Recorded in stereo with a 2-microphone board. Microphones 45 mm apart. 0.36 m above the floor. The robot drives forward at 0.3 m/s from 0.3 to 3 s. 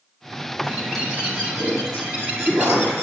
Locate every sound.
0.6 s a bird: 25° right (ahead or behind), 7.5 m; by 3.0 s 20° right (ahead or behind), 8 m